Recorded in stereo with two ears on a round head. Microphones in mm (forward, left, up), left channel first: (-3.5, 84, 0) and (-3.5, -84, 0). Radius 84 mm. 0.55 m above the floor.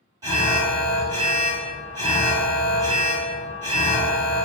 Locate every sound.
0.2 s an alarm: 20° right (ahead or behind), 1.9 m